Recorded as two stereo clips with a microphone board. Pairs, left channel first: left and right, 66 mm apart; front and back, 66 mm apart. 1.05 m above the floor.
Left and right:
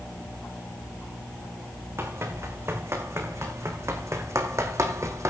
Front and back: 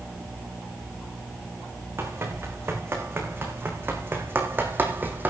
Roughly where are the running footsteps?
Behind right.